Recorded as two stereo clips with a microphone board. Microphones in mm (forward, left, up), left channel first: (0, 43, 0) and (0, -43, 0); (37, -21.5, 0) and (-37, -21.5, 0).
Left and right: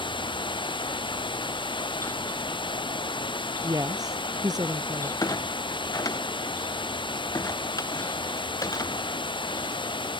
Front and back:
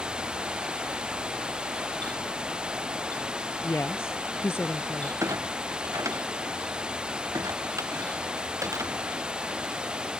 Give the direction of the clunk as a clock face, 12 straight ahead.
8 o'clock.